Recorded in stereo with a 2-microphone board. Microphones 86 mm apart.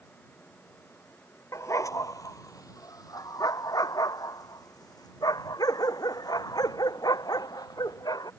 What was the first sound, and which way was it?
A dog barking, 35° left (ahead or behind).